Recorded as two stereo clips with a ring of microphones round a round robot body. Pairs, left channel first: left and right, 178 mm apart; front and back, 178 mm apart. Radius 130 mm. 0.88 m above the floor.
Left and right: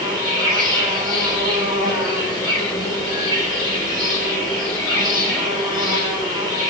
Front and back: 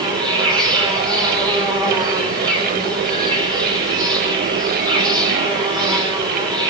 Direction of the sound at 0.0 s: 115° left.